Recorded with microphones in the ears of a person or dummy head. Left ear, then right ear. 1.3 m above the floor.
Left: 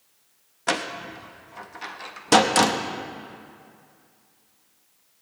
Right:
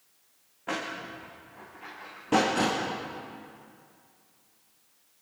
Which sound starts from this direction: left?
A door slam, at 0.7 s.